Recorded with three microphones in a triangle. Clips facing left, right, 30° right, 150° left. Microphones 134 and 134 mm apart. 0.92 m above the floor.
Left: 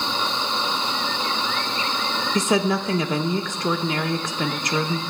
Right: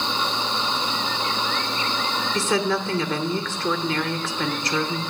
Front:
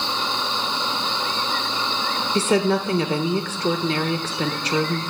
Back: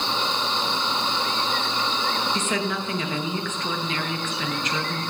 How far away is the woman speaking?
About 0.5 m.